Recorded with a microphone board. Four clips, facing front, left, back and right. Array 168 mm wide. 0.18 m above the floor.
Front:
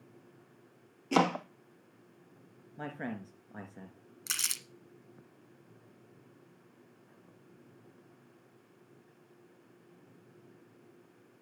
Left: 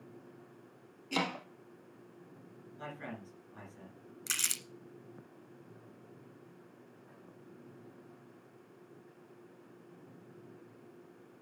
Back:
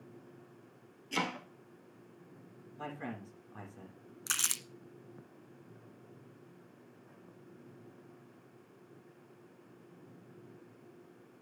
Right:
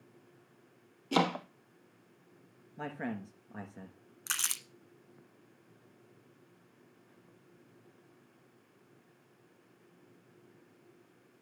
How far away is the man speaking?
About 3 m.